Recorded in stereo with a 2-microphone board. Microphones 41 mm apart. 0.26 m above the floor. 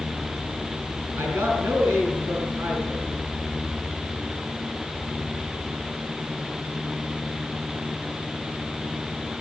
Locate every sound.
1.2 s a man speaking: 70° right (ahead or behind), 5.5 m